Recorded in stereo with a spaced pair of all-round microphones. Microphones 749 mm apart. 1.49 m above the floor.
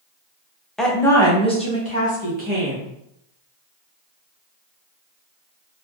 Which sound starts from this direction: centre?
A woman speaking, at 0.8 s.